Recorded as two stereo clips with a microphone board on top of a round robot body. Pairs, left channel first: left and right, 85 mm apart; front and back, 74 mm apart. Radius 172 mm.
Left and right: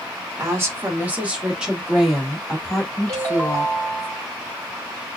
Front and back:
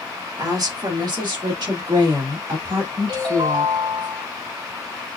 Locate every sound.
0.4 s a woman speaking: 145° right, 1.5 m; by 4.1 s 165° left, 3.5 m
3.1 s a ringtone: straight behind, 4.5 m